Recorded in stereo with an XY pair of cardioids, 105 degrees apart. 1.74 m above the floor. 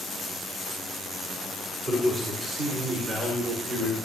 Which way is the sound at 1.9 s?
50° right.